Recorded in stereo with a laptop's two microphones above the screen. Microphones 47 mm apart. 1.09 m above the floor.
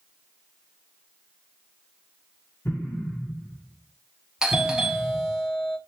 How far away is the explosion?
About 1.8 m.